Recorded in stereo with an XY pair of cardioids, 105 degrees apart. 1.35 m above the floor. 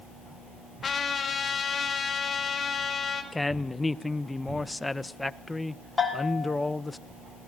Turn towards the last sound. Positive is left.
turn(degrees=20)